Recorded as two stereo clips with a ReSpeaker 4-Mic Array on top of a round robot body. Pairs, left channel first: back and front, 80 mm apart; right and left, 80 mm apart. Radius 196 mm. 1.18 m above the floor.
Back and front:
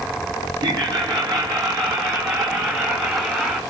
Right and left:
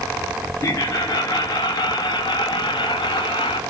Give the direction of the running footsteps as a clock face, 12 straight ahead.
No running footsteps in this recording.